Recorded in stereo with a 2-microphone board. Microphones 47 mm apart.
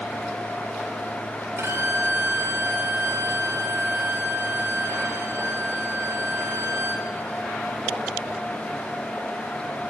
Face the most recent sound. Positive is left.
turn(degrees=-70)  # may be behind; listen again after turning